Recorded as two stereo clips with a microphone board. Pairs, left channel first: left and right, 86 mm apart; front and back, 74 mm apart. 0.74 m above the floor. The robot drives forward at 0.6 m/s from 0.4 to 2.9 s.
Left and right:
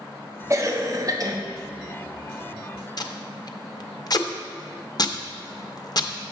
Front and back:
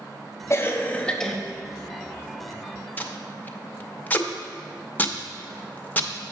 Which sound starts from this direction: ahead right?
A cough, at 0.5 s.